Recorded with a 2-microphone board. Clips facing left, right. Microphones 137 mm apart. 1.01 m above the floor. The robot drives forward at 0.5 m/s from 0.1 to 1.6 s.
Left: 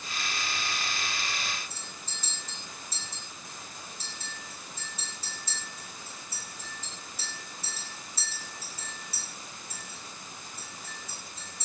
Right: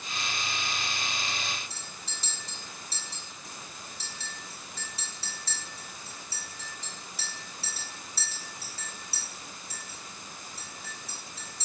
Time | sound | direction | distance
1.7 | a clink | 70° right (ahead or behind) | 3 m